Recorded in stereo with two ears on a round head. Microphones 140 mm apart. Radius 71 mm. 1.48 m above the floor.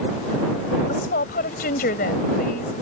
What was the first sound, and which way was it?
A woman speaking, 65° left (ahead or behind).